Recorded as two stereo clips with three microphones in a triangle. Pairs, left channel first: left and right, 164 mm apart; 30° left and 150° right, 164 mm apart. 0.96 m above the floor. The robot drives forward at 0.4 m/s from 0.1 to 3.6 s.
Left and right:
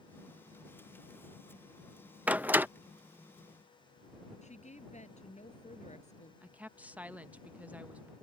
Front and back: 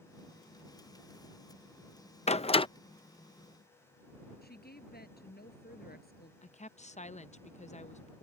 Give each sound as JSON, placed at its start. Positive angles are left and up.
{"t": 2.3, "sound": "a door slam", "azimuth_deg": -10}
{"t": 4.4, "sound": "a woman speaking", "azimuth_deg": 45}
{"t": 6.4, "sound": "a woman speaking", "azimuth_deg": -10}